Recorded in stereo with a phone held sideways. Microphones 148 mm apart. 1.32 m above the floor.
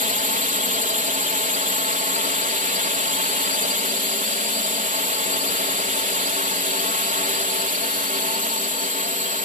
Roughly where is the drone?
Right.